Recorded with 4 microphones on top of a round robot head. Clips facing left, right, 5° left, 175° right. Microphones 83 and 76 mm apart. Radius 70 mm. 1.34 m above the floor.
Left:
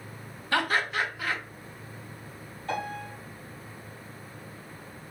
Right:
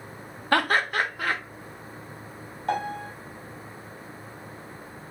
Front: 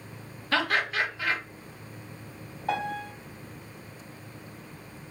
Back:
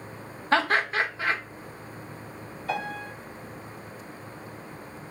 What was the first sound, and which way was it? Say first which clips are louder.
Laughter: right 4 dB, back 3 dB; 120° right.